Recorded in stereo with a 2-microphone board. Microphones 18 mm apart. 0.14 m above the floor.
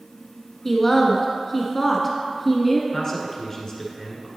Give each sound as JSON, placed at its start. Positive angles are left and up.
{"t": 0.7, "sound": "a woman speaking", "side_deg": 20, "distance_m": 1.1}
{"t": 2.9, "sound": "a man speaking", "side_deg": 25, "distance_m": 1.3}